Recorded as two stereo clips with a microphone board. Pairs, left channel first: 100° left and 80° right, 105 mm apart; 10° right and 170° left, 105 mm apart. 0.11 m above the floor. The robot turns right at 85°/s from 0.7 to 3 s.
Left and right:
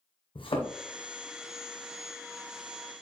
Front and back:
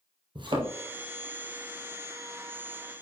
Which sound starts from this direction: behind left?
A thud, at 0.3 s.